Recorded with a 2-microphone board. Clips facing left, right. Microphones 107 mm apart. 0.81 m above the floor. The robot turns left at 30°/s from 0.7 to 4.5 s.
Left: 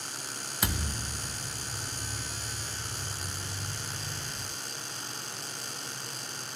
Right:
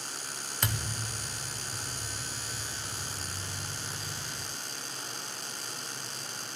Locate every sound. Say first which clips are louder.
0.6 s a thud: left 2 dB; 5° left (ahead or behind), 1.3 m; by 1.4 s 25° left (ahead or behind), 1.3 m